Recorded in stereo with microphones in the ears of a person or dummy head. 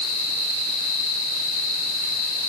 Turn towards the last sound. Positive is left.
No sound to turn to.